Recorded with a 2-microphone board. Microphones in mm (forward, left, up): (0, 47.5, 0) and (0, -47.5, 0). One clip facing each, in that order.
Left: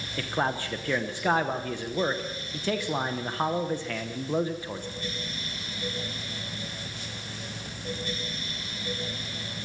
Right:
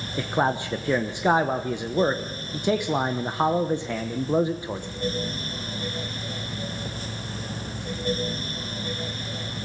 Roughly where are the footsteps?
I don't hear footsteps.